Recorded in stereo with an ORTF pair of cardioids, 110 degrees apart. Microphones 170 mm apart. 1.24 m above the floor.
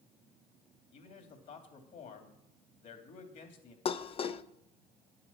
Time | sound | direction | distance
0.9 | a man speaking | 55° left | 2.5 m
3.9 | dishes clattering | 35° left | 0.6 m